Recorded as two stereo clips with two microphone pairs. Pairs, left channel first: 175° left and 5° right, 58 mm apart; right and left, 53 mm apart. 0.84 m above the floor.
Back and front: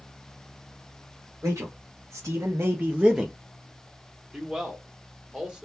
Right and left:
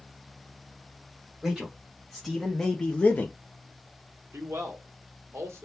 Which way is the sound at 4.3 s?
70° left.